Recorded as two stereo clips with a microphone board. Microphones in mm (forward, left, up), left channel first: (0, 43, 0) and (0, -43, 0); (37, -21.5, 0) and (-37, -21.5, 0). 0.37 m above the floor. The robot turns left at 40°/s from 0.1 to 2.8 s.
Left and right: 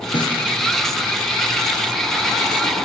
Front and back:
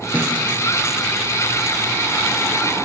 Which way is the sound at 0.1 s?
115° left.